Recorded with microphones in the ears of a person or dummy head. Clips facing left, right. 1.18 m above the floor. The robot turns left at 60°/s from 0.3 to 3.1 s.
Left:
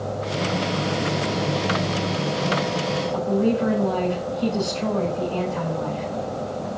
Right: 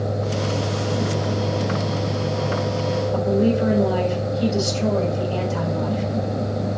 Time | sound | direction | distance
3.1 | a woman speaking | 65° right (ahead or behind) | 6.5 m